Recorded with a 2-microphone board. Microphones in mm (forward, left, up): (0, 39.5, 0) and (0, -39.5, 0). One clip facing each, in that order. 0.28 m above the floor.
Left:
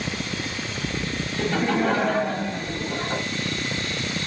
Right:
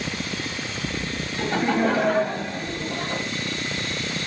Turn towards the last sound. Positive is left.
turn(degrees=10)  # may be behind; listen again after turning